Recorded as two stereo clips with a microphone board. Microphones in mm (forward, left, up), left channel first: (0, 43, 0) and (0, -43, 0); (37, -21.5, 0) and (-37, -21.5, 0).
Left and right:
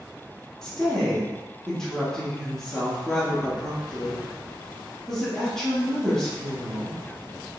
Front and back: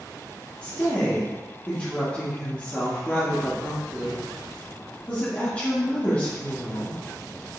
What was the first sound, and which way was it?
A woman speaking, 25° left.